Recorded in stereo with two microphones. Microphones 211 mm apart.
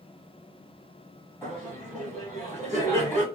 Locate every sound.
1.4 s laughter: 15° left (ahead or behind), 1.1 m